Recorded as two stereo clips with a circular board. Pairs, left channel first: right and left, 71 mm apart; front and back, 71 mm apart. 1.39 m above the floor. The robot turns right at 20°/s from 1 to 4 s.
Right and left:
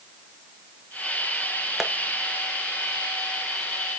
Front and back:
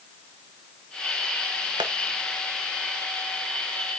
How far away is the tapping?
About 1.1 m.